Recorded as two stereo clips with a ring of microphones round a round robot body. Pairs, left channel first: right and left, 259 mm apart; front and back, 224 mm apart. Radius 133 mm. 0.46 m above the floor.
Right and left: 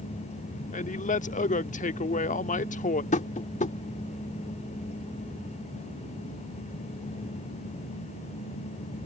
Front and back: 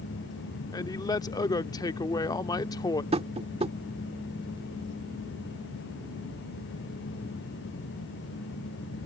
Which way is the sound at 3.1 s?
130° right.